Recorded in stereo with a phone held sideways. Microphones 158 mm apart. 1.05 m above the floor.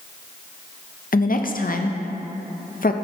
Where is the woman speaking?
60° left (ahead or behind), 0.6 m.